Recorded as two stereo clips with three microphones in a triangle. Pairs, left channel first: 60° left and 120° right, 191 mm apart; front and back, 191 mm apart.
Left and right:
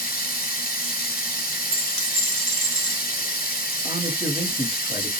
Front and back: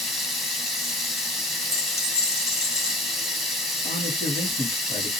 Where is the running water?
90° left, 1.0 m.